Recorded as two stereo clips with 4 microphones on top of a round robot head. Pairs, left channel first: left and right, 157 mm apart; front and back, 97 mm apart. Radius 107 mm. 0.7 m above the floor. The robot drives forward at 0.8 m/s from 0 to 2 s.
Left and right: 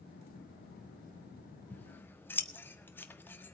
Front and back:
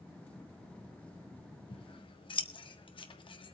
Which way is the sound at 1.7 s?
10° left.